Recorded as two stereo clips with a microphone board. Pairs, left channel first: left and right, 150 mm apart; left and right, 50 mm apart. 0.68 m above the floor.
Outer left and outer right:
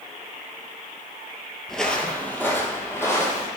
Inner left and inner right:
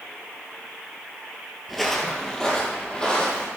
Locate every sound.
1.7 s footsteps: 5° left (ahead or behind), 0.8 m; by 3.5 s 20° left (ahead or behind), 1.9 m